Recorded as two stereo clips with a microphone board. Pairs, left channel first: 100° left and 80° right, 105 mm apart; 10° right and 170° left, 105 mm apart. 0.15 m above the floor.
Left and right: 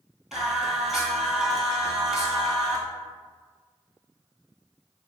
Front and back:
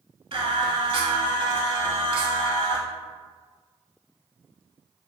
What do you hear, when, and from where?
0.3 s singing: 165° right, 0.6 m